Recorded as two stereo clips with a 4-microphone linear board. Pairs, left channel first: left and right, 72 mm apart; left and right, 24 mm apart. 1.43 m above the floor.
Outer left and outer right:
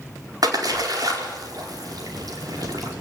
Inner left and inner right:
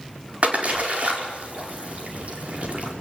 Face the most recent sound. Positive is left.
turn(degrees=-60)  # may be behind; listen again after turning